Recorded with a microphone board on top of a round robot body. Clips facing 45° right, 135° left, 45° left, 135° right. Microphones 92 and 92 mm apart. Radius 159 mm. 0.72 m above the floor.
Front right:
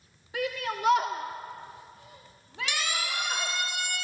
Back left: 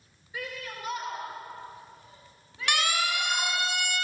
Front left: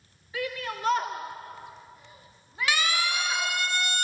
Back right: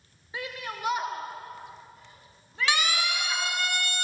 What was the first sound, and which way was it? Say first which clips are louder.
A shout: front right 7 dB, front left 4 dB; 70° right.